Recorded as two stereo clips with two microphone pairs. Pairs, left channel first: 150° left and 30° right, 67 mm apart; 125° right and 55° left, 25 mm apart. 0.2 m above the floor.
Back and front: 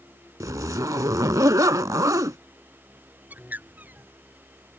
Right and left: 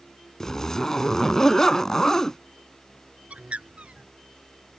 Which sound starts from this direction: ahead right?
A zipper, at 0.4 s.